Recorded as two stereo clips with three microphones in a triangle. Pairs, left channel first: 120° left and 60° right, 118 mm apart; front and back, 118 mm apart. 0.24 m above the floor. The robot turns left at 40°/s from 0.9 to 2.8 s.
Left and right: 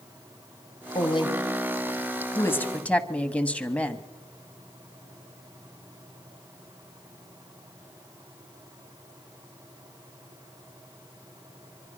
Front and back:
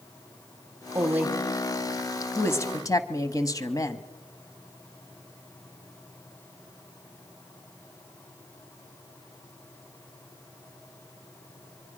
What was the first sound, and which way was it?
A woman speaking, 120° left.